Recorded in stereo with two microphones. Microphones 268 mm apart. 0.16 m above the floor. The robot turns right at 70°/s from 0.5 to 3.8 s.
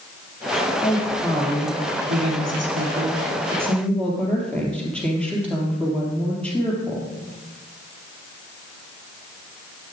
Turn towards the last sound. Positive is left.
turn(degrees=5)